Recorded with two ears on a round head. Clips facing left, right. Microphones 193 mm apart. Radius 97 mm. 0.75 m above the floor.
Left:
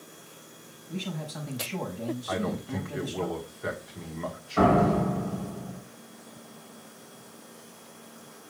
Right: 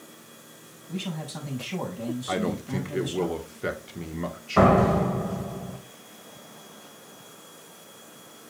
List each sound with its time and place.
0.9 s a man speaking: 55° right (ahead or behind), 6.5 m
2.3 s a man speaking: 35° right (ahead or behind), 1.5 m
4.6 s a door slam: 75° right (ahead or behind), 2 m